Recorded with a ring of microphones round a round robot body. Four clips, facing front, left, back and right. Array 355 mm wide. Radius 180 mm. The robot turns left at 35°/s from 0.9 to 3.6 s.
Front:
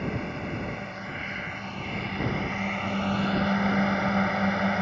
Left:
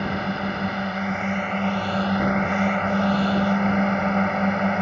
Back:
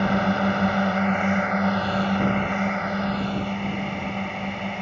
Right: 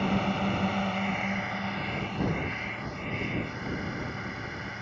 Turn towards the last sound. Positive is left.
turn(degrees=75)